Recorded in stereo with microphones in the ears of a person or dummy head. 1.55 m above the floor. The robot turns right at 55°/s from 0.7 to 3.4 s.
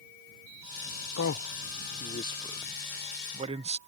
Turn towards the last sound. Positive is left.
turn(degrees=-35)  # may be behind; listen again after turning